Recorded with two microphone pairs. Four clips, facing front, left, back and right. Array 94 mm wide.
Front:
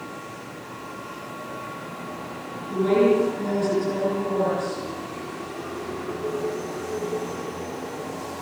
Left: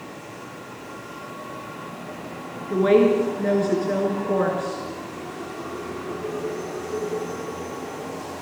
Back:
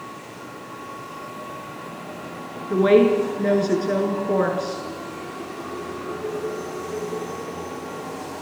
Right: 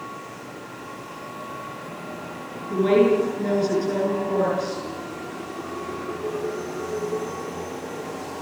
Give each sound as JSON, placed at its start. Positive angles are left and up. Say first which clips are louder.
{"t": 2.7, "sound": "a woman speaking", "louder": "left 1 dB, back 3 dB", "azimuth_deg": 150, "distance_m": 5.5}